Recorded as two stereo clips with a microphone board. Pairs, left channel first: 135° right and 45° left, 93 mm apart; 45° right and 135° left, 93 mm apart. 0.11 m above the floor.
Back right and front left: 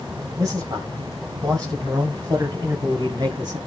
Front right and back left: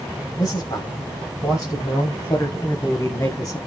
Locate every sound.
0.4 s a man speaking: 5° right, 10 m; by 3.6 s straight ahead, 7 m